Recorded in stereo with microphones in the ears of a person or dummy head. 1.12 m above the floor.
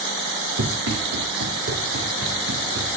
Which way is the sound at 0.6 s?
75° right (ahead or behind).